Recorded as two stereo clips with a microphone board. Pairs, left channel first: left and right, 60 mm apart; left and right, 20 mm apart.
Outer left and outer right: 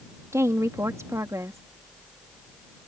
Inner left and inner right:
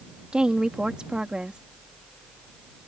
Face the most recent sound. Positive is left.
turn(degrees=-55)  # may be behind; listen again after turning